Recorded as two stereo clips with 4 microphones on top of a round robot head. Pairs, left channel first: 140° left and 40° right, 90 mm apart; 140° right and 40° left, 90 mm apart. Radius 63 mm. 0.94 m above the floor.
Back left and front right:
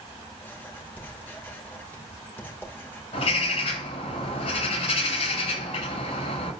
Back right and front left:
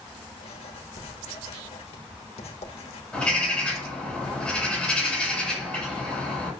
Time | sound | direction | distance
0.4 | writing | 155° right | 2.5 m
3.1 | a bird | 140° left | 8 m